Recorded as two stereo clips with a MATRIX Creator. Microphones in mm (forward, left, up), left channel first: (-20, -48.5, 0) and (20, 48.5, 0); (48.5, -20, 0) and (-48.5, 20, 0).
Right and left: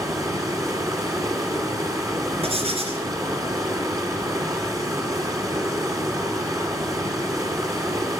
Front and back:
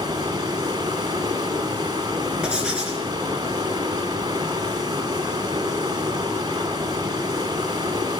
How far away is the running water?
About 2.5 m.